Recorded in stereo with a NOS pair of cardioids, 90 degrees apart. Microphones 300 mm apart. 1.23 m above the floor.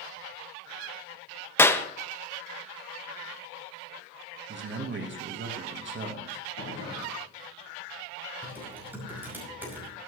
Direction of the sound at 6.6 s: 45° left.